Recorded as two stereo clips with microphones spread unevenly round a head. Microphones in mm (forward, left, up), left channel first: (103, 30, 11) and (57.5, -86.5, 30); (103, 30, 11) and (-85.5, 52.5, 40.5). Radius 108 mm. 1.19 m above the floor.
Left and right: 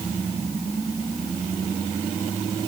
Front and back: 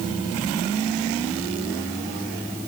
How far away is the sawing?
No sawing in this recording.